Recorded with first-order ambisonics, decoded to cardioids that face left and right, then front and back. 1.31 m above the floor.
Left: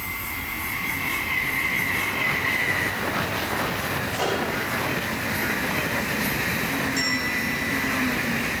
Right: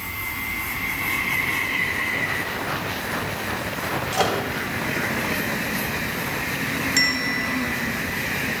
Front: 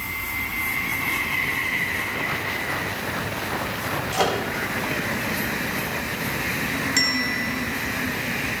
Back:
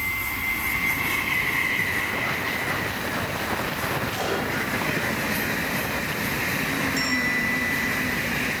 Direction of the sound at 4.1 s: 50° right.